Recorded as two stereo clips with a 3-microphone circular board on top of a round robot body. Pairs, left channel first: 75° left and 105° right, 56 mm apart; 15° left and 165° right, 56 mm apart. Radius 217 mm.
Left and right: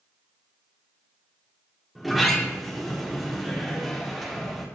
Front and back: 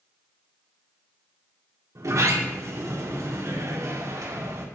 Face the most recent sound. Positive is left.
turn(degrees=165)